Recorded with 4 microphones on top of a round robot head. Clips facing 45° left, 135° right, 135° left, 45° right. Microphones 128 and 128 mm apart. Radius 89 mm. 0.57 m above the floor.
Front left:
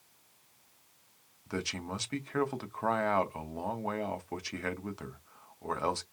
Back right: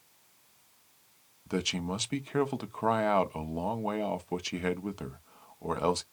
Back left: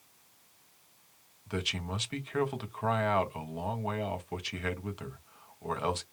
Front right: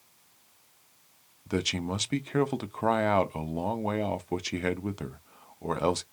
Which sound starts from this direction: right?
A man speaking, at 1.5 s.